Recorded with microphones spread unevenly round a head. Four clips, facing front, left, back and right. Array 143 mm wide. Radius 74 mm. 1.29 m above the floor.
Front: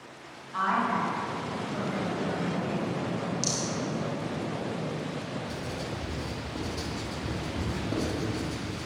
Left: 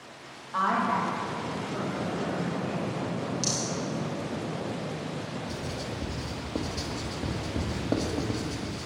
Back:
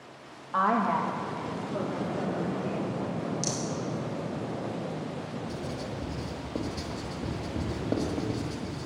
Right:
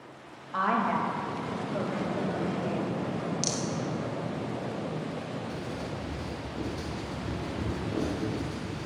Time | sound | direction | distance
0.5 | a woman speaking | 170° right | 2.0 m
3.4 | a rattle | 160° right | 0.9 m
5.5 | writing | 125° left | 1.9 m